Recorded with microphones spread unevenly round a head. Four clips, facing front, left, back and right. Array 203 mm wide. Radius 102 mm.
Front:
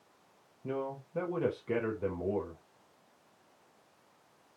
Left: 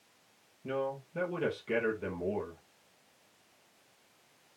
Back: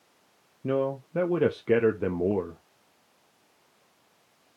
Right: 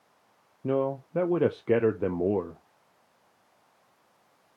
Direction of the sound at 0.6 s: 130° right.